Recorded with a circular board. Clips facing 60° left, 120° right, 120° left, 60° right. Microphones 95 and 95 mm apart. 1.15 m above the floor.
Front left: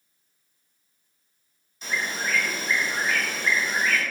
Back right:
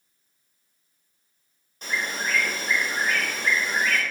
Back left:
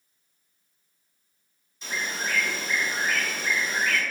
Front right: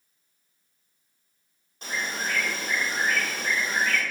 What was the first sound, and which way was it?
A bird, 85° right.